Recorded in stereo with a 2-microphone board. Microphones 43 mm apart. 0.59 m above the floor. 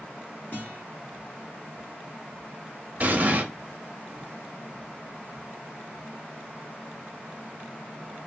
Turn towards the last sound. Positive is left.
turn(degrees=-40)  # may be behind; listen again after turning